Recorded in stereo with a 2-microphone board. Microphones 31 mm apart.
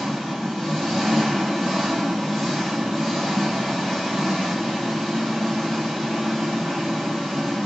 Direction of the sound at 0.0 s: 15° right (ahead or behind).